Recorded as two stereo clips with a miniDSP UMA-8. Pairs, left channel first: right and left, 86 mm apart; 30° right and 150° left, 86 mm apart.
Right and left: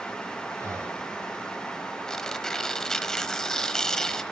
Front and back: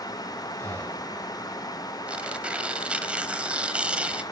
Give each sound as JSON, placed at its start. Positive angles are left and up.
{"t": 0.6, "sound": "breathing", "azimuth_deg": 35, "distance_m": 3.5}
{"t": 2.1, "sound": "tearing paper", "azimuth_deg": -165, "distance_m": 1.2}